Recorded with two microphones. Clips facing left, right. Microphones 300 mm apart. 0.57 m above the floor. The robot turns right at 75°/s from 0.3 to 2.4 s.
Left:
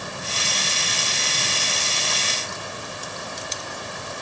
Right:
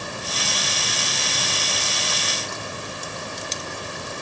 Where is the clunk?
I don't hear a clunk.